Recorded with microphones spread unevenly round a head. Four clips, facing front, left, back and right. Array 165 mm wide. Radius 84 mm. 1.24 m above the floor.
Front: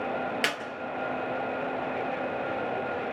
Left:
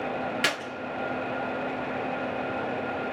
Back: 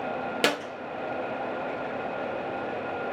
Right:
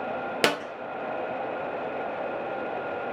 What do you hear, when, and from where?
0.4 s a clap: 125° right, 1.1 m